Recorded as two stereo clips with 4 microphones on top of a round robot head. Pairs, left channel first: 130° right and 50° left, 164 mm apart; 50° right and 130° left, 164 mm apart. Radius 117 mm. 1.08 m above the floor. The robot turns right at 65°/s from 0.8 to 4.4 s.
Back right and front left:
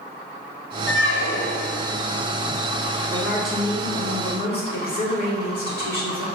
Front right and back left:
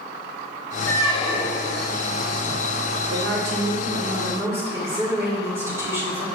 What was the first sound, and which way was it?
A squeak, 130° right.